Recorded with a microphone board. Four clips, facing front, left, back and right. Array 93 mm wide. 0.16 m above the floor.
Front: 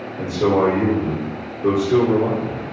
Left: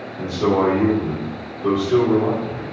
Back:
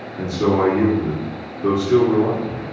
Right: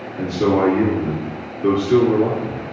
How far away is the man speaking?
About 1.8 m.